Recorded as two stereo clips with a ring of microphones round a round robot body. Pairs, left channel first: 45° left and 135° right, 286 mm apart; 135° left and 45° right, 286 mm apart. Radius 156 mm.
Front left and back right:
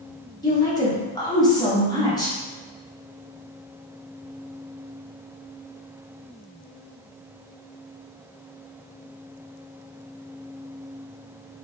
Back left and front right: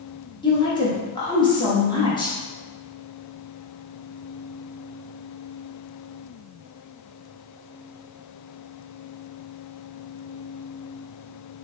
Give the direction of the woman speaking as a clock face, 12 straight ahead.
9 o'clock.